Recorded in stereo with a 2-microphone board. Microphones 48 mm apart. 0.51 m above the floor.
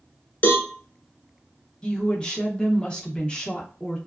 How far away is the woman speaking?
About 0.7 m.